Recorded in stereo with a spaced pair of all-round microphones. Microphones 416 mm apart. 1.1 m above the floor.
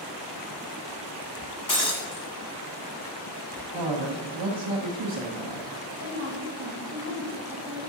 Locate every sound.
1.7 s breaking glass: 60° left (ahead or behind), 1.4 m
3.7 s a man speaking: 75° right (ahead or behind), 0.8 m
6.0 s a woman speaking: 30° right (ahead or behind), 1.3 m